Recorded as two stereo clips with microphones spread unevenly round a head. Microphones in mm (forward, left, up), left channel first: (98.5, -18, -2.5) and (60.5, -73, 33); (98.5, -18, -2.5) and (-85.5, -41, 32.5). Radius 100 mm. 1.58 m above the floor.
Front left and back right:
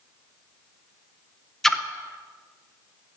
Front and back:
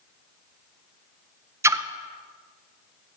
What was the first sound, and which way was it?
A splash, 150° right.